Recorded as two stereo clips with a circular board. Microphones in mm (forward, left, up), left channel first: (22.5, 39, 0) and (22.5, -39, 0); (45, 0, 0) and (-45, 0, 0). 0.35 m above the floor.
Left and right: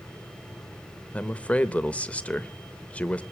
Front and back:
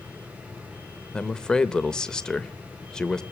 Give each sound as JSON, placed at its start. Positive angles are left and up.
{"t": 1.1, "sound": "a man speaking", "azimuth_deg": 65, "distance_m": 0.8}